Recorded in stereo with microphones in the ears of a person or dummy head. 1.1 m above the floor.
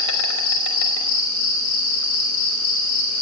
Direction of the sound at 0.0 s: 90° left.